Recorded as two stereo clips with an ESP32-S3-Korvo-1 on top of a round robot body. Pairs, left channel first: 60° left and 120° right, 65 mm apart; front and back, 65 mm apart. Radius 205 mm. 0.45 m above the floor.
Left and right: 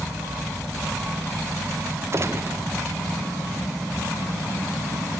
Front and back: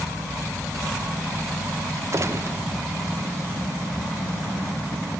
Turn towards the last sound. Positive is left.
turn(degrees=-155)